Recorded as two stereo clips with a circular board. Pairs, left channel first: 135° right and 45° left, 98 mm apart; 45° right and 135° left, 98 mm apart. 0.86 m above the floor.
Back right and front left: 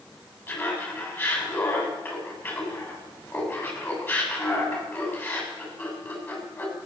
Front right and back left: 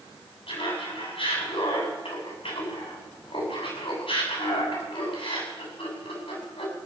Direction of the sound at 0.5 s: 65° right.